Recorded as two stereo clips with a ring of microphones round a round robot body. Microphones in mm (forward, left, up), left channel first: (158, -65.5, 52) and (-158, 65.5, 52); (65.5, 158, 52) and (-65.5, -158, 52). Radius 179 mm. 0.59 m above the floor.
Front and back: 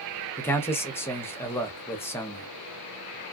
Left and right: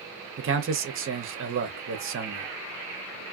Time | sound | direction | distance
0.4 | a man speaking | 100° right | 0.7 m